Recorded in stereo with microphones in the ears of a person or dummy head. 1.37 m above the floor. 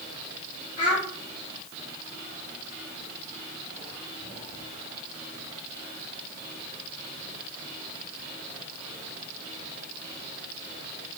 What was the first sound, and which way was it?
A child speaking, 40° left (ahead or behind).